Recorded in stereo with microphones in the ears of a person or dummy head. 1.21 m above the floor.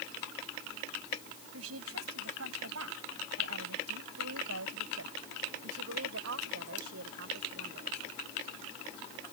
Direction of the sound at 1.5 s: 75° right (ahead or behind).